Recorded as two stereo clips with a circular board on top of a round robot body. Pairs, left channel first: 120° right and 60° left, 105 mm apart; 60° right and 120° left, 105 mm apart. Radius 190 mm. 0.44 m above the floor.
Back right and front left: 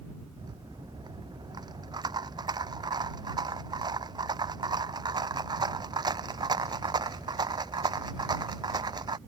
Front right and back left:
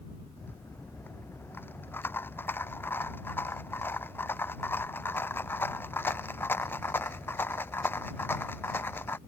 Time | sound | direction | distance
0.4 | a rattle | 10° left | ?